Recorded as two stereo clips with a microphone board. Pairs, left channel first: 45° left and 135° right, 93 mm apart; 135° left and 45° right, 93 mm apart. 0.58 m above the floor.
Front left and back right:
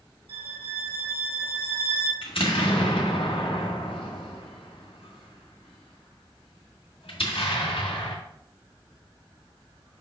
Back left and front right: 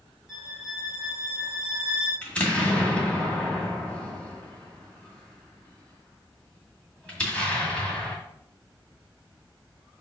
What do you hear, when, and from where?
0.3 s a violin: 125° right, 3.5 m
2.2 s an explosion: 60° left, 1.8 m